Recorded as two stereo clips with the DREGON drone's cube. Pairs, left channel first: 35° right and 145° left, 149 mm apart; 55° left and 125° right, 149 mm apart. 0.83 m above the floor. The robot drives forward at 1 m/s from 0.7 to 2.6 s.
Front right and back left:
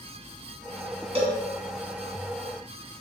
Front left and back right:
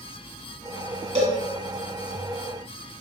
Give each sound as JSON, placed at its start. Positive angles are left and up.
{"t": 1.1, "sound": "a cowbell", "azimuth_deg": -165, "distance_m": 2.5}